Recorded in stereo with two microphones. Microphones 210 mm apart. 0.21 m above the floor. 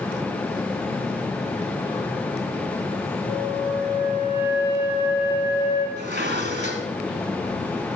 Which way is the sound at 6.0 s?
55° right (ahead or behind).